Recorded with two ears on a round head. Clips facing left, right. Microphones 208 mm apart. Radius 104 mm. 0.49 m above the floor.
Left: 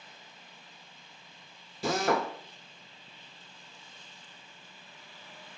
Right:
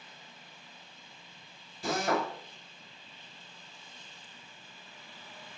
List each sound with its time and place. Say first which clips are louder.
1.8 s a drill: left 2 dB; 55° left (ahead or behind), 0.6 m